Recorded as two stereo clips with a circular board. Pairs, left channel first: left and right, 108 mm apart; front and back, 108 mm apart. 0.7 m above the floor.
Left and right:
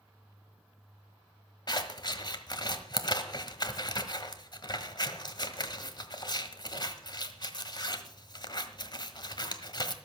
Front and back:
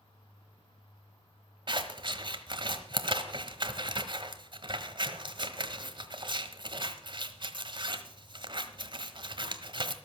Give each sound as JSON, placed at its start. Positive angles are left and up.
{"t": 1.7, "sound": "scissors", "azimuth_deg": 140, "distance_m": 1.2}